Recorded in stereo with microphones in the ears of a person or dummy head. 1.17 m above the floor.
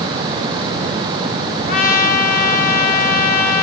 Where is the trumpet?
45° left (ahead or behind), 2 m.